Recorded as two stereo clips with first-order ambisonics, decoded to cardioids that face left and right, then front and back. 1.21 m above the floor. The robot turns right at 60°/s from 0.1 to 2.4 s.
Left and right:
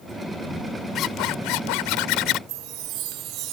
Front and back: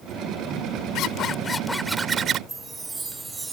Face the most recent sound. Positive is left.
turn(degrees=-105)